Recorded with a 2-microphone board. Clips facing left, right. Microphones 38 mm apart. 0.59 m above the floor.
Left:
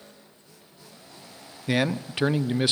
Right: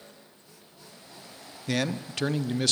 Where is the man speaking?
20° left (ahead or behind), 0.6 m.